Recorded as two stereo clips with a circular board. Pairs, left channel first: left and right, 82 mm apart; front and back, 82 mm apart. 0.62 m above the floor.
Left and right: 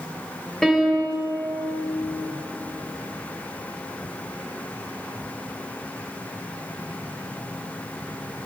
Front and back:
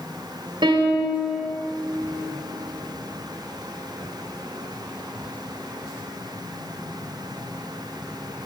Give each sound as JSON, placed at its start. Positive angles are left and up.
{"t": 0.6, "sound": "a piano", "azimuth_deg": 175, "distance_m": 2.0}